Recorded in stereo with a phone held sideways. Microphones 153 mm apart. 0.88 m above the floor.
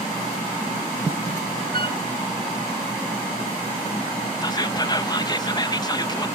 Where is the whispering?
25° left (ahead or behind).